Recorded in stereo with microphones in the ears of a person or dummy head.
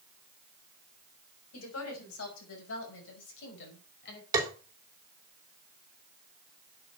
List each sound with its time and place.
1.5 s a woman speaking: 85° left, 6.5 m; by 4.2 s 60° left (ahead or behind), 5.5 m
4.3 s tapping: 20° right (ahead or behind), 3 m